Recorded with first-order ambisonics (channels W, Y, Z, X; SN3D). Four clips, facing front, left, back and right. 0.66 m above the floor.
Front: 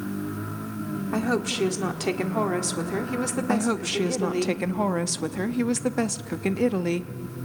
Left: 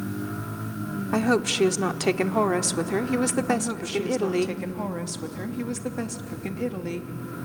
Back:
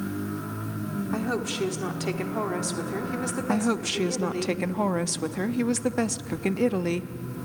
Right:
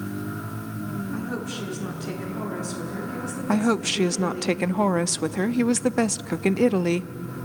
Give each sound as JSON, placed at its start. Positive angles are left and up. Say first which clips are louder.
{"t": 1.1, "sound": "a woman speaking", "louder": "left 8 dB, front 4 dB", "azimuth_deg": 75, "distance_m": 1.3}
{"t": 3.5, "sound": "a woman speaking", "louder": "right 3 dB, even", "azimuth_deg": -85, "distance_m": 0.5}